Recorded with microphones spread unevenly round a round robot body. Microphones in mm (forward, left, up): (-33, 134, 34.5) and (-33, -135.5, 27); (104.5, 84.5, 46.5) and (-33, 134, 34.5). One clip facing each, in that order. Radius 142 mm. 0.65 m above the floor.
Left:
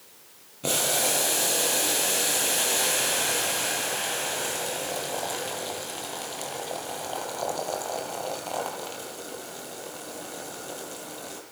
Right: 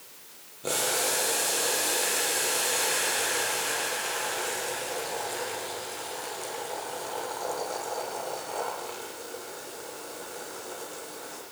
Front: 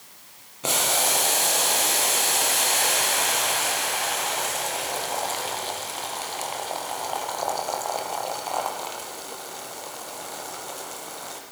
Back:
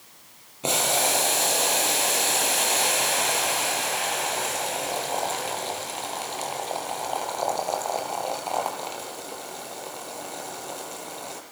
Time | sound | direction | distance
0.6 | boiling | 90° left | 6 m